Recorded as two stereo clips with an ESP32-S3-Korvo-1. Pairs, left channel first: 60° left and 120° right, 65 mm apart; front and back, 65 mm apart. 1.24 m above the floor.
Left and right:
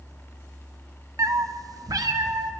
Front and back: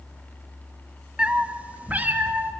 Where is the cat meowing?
110° right, 0.7 m; by 2.5 s 120° right, 1.3 m.